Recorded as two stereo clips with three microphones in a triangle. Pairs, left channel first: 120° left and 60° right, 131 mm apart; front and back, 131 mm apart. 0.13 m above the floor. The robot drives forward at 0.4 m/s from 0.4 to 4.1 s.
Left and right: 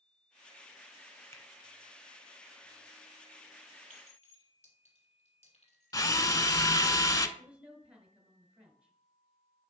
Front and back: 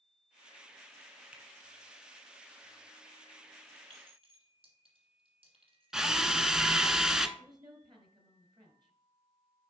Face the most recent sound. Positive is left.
turn(degrees=-140)